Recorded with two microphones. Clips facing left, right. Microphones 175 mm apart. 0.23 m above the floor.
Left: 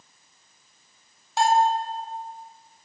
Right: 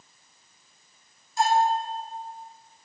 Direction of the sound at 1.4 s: 85° left.